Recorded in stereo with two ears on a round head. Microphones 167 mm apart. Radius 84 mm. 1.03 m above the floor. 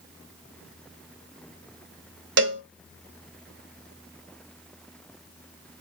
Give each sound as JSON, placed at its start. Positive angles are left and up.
{"t": 2.4, "sound": "a cowbell", "side_deg": -70, "distance_m": 0.9}